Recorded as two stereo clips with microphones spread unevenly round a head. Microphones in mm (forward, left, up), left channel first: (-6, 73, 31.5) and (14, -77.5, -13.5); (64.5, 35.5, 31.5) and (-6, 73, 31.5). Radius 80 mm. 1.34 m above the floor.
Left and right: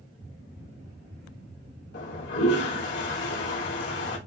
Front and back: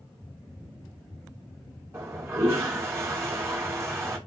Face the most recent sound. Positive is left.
turn(degrees=95)